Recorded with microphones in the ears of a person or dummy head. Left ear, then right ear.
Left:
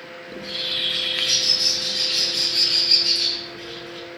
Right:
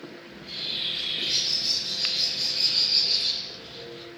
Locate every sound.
0.3 s a bird: 50° left (ahead or behind), 6 m